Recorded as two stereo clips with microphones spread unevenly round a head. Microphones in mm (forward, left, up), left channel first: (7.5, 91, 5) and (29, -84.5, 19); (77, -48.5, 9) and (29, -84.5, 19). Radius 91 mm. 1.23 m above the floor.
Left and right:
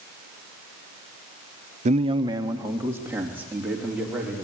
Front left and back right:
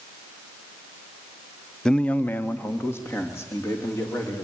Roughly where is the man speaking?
Ahead right.